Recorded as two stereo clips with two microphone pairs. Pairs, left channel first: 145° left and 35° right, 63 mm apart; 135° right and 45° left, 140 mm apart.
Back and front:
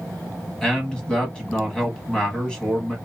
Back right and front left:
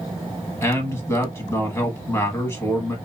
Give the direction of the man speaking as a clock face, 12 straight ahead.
5 o'clock.